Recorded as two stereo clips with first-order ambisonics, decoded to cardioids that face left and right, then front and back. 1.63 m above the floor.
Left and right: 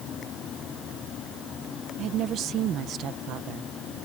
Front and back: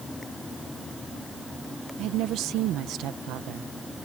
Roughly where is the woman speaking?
Behind right.